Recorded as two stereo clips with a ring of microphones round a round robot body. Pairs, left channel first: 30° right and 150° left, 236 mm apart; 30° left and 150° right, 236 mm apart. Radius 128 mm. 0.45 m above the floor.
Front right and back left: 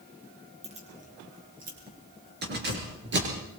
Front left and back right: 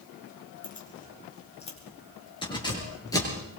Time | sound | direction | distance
0.6 | keys jangling | 85° left | 5 m